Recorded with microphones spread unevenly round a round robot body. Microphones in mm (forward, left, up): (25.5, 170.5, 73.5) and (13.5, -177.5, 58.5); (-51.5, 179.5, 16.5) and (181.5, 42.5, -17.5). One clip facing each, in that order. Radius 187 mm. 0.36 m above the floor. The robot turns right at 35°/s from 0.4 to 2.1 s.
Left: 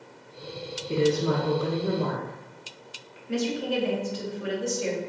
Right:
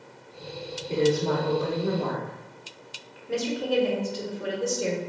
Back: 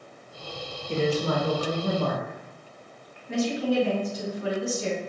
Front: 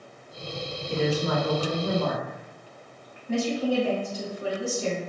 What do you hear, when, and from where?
0.9 s a woman speaking: 125° left, 1.0 m; by 3.2 s 165° left, 1.0 m
3.3 s a woman speaking: 70° right, 1.7 m